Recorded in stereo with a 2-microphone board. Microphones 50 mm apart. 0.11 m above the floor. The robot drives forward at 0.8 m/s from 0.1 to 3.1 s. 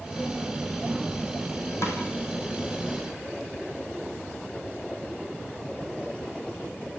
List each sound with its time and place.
1.8 s a snare drum: 60° left (ahead or behind), 4.5 m